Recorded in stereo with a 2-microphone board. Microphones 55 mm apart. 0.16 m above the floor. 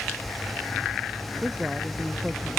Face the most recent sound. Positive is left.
turn(degrees=-10)  # may be behind; listen again after turning